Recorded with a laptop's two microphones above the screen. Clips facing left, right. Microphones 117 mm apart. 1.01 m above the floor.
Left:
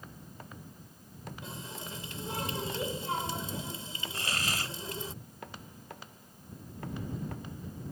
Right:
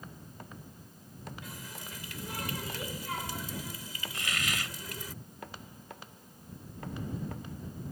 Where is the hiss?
35° left (ahead or behind).